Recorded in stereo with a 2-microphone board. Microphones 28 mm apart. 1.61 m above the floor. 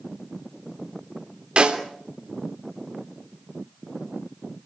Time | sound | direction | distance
1.6 | a snare drum | 35° right (ahead or behind) | 3 m